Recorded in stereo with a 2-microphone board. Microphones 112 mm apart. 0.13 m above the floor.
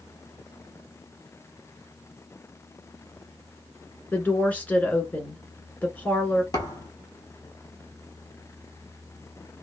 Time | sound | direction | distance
4.1 | a woman speaking | 15° left (ahead or behind) | 1.3 m
6.5 | a thud | 35° left (ahead or behind) | 1.2 m